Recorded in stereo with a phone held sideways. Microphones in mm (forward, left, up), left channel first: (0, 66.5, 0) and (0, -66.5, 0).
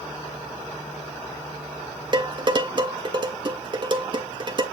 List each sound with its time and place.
2.1 s dishes clattering: 35° right (ahead or behind), 1.5 m